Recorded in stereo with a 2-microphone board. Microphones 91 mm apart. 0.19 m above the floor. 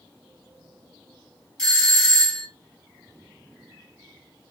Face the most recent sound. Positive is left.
turn(degrees=5)  # may be behind; listen again after turning